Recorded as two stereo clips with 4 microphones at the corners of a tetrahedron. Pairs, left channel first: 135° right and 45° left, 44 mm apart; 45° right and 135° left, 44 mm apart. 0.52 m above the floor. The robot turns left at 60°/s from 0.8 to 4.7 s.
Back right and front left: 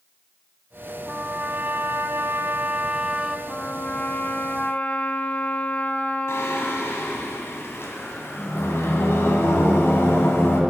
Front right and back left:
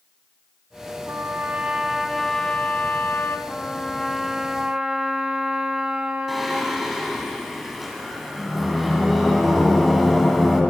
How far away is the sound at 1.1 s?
About 0.6 m.